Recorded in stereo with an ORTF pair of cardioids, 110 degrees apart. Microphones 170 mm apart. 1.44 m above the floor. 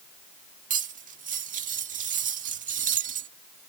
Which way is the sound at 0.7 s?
50° right.